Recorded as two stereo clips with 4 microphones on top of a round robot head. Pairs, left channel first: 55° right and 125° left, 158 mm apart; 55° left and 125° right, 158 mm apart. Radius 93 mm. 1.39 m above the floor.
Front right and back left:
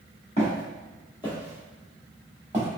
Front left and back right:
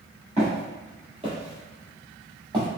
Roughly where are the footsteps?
Right.